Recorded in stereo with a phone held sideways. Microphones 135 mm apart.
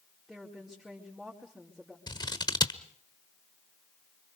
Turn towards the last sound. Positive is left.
turn(degrees=30)  # may be behind; listen again after turning